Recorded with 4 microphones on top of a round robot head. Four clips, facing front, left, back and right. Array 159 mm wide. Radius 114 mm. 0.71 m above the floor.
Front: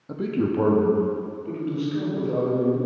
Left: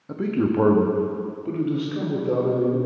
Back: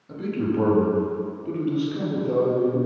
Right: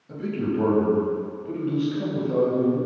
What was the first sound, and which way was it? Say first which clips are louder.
A man speaking: left 4 dB, front 1 dB; 50° left.